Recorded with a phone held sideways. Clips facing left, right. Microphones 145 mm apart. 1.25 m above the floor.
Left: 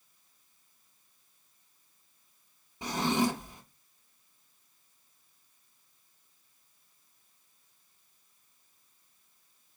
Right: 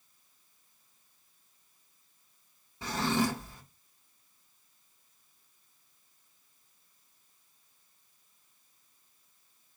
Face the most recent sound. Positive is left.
turn(degrees=15)  # may be behind; listen again after turning